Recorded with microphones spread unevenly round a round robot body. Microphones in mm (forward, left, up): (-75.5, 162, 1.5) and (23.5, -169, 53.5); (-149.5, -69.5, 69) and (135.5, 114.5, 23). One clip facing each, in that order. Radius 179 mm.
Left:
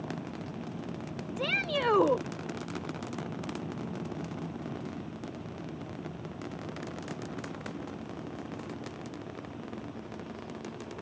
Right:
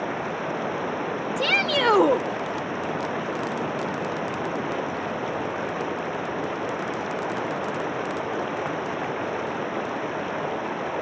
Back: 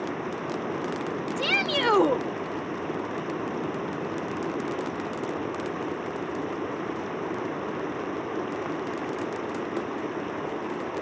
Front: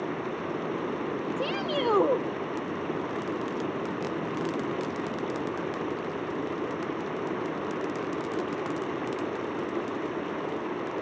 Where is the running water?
60° right.